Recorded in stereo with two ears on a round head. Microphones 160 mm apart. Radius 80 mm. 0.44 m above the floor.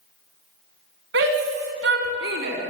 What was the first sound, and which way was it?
A shout, 75° right (ahead or behind).